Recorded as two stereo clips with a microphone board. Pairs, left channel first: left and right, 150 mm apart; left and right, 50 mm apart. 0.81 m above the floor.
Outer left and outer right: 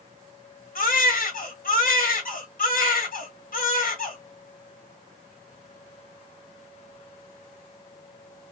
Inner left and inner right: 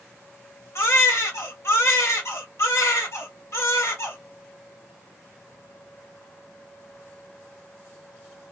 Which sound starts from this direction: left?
A baby crying, at 0.8 s.